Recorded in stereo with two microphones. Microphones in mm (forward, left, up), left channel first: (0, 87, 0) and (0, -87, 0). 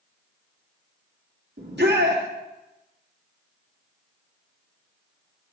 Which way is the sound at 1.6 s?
80° right.